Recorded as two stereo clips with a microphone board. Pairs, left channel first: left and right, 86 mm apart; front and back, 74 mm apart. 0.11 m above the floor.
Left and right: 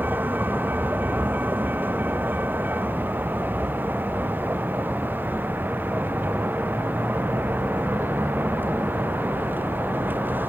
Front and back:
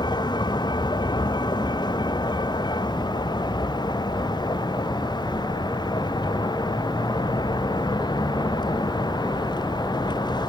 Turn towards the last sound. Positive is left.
turn(degrees=-20)